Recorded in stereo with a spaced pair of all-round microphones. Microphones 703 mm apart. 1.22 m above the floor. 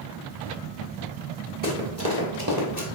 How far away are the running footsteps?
About 1.3 m.